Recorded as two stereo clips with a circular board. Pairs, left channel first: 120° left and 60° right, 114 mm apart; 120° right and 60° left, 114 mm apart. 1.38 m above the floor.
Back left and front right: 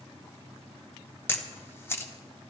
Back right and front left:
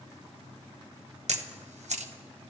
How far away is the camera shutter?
About 1.3 m.